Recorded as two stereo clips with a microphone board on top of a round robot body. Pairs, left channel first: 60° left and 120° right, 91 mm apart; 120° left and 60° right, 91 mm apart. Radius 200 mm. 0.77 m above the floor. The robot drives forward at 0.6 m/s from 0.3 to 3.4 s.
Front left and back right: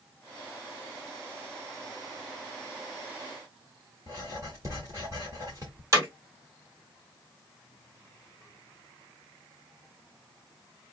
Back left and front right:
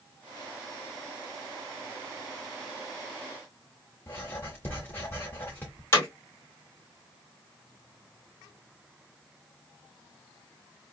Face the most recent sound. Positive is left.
turn(degrees=-175)